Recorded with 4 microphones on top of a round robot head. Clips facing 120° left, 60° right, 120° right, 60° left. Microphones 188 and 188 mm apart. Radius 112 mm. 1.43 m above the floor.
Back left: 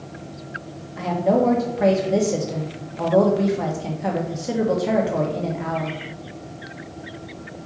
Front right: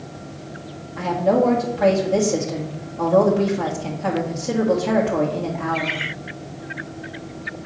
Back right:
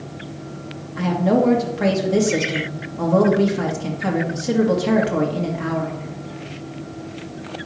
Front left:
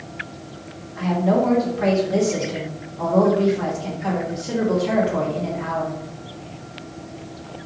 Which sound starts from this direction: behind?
A woman speaking, at 1.0 s.